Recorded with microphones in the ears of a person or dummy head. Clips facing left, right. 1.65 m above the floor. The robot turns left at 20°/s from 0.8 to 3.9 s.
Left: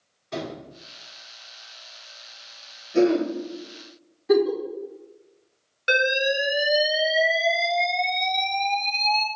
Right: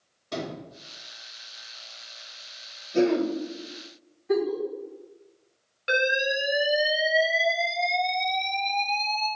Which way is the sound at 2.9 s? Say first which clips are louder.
Left 3 dB; 10° right (ahead or behind).